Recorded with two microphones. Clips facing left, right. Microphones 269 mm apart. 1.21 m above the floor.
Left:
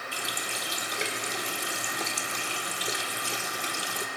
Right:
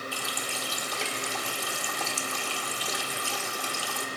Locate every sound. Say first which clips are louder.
0.1 s a running tap: right 1 dB; 20° left (ahead or behind), 2.5 m